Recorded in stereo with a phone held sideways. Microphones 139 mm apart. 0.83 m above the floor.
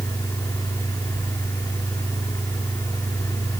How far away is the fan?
About 2.5 m.